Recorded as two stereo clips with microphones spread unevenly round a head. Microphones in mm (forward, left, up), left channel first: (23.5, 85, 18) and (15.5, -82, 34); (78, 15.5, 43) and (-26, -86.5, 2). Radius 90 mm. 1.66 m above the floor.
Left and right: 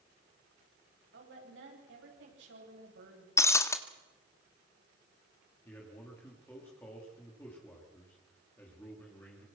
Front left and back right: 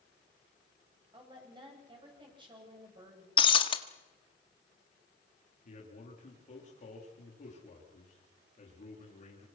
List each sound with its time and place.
1.1 s a woman speaking: 75° right, 10 m
3.4 s breaking glass: 10° left, 1.7 m
5.7 s a man speaking: 10° left, 4.5 m